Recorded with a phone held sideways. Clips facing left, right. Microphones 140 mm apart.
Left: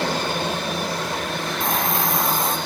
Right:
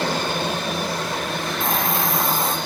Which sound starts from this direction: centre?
A hiss, at 1.6 s.